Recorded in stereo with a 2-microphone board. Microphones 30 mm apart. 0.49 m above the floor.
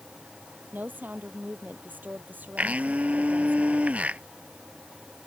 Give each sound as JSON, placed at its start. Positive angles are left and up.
{"t": 0.7, "sound": "a woman speaking", "side_deg": -80}
{"t": 2.6, "sound": "a blender", "side_deg": -50}